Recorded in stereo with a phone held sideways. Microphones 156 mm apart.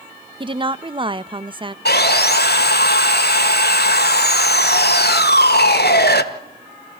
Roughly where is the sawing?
Left.